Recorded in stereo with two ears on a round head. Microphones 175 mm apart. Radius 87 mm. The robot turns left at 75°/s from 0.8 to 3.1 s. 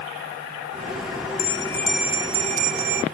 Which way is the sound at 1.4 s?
40° left.